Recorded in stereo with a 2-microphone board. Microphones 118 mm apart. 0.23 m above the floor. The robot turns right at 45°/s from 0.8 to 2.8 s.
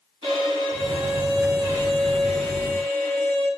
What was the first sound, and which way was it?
A violin, 65° right.